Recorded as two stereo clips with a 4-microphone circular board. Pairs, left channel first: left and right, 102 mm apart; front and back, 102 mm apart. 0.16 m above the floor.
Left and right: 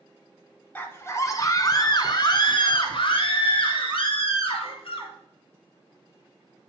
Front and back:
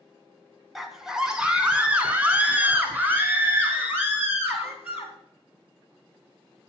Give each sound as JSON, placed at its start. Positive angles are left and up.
{"t": 0.8, "sound": "a scream", "azimuth_deg": 95, "distance_m": 1.1}